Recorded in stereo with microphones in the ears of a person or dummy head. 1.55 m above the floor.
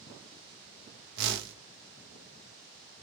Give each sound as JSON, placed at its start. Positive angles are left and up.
{"t": 1.2, "sound": "a whoosh", "side_deg": -60, "distance_m": 1.1}